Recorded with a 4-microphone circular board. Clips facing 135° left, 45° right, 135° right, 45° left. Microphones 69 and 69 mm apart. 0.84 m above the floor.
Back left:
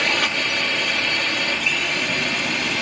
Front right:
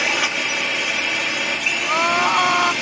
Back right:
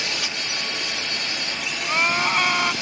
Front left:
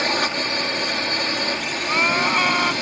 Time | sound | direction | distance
0.0 | a drone | 35° left | ?
1.8 | crying | 40° right | ?